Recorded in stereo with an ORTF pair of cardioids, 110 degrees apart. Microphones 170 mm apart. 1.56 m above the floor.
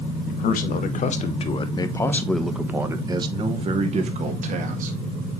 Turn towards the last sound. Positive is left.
turn(degrees=-55)